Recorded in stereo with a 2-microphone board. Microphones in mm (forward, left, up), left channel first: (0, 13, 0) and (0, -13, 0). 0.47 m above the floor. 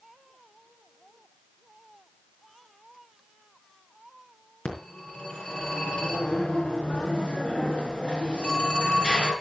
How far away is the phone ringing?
About 4 m.